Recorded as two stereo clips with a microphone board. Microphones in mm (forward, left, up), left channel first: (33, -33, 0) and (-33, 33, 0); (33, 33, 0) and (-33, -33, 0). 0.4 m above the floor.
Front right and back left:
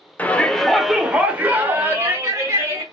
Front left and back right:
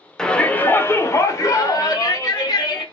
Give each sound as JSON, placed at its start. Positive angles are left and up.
{"t": 0.2, "sound": "a shout", "azimuth_deg": -25, "distance_m": 0.8}